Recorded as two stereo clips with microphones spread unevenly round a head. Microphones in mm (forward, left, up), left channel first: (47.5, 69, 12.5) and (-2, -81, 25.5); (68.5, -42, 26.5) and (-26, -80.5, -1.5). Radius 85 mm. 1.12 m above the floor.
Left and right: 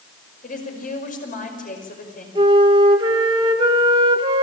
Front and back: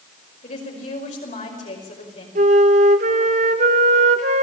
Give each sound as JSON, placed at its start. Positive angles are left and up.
{"t": 0.4, "sound": "a woman speaking", "azimuth_deg": 35, "distance_m": 5.5}
{"t": 2.4, "sound": "a flute", "azimuth_deg": -170, "distance_m": 1.1}